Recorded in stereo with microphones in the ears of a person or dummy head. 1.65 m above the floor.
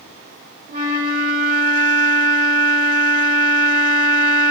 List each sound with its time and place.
0.7 s a flute: 55° right (ahead or behind), 0.8 m